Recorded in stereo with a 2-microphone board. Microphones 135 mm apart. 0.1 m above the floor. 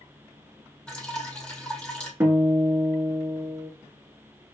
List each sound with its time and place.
0.9 s dripping: 10° left (ahead or behind), 1.1 m
2.2 s a guitar: 20° right (ahead or behind), 1.2 m